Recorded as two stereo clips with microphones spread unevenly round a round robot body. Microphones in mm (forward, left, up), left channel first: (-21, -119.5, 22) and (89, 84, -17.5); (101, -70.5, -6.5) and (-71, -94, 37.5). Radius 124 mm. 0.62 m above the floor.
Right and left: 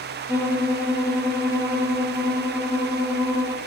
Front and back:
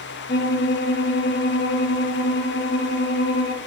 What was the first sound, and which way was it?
A violin, 25° right.